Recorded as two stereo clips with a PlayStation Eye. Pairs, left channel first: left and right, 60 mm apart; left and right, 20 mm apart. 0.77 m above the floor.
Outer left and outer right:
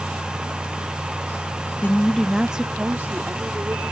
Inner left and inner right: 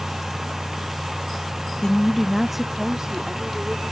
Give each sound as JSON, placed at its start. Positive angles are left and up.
{"t": 1.8, "sound": "a woman speaking", "side_deg": 35}